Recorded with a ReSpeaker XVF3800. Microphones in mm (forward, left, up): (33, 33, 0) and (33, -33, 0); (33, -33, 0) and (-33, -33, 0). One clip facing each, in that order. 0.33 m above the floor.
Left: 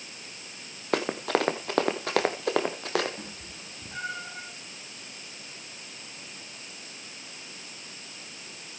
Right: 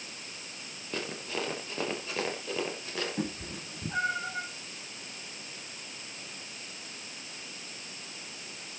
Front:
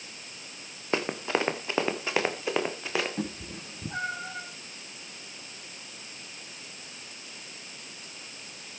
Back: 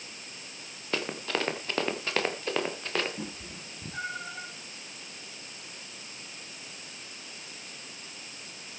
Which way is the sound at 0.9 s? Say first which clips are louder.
Left 10 dB, front 4 dB; 65° left.